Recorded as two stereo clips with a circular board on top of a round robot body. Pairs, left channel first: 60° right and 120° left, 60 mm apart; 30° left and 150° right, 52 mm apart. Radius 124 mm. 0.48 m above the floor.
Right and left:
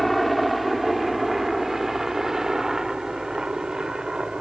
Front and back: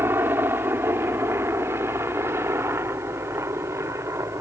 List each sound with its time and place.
0.0 s a helicopter: 150° right; by 4.4 s 165° right